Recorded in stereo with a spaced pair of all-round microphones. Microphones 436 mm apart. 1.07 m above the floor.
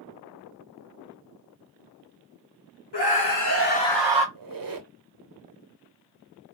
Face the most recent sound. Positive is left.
turn(degrees=-50)  # may be behind; listen again after turning